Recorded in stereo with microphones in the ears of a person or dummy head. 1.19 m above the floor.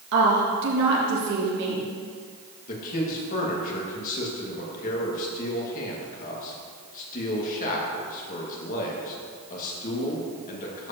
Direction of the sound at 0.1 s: 60° right (ahead or behind).